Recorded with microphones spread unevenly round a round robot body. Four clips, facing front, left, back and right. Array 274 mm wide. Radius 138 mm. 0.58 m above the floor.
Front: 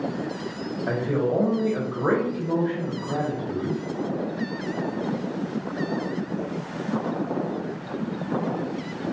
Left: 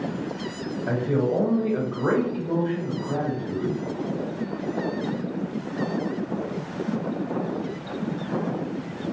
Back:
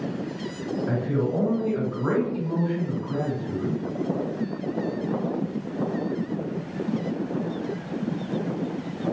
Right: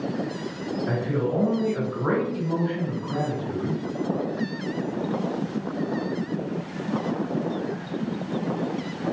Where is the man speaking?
30° left, 1.1 m.